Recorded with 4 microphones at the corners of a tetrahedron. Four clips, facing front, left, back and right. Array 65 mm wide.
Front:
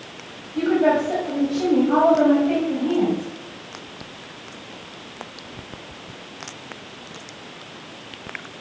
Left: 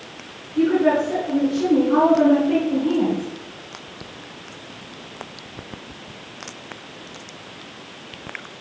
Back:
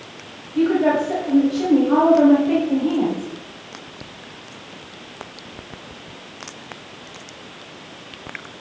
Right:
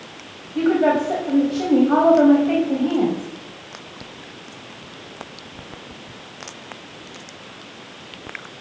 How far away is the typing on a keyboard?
No typing on a keyboard in this recording.